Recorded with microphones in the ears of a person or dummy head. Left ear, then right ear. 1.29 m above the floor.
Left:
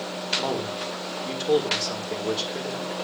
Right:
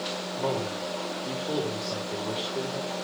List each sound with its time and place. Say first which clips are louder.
0.3 s a man speaking: left 3 dB; 75° left (ahead or behind), 5 m